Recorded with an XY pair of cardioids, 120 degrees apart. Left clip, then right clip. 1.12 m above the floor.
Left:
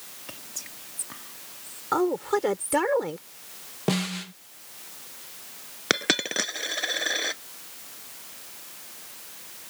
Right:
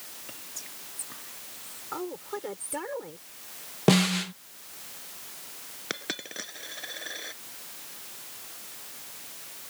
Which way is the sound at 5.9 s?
60° left.